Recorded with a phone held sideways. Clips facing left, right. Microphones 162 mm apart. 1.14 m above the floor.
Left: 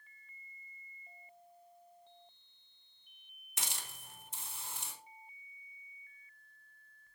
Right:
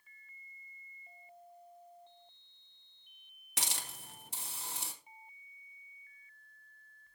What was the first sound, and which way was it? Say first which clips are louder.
A hiss: right 3 dB; 75° right (ahead or behind).